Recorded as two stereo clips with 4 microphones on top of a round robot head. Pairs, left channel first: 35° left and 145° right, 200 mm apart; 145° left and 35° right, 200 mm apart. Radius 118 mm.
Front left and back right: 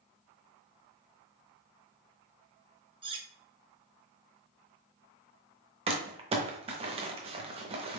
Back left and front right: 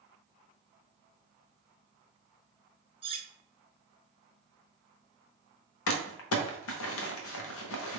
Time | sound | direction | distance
3.0 | cutlery clinking | 90° right | 0.6 m
5.9 | crumpling | 150° left | 0.7 m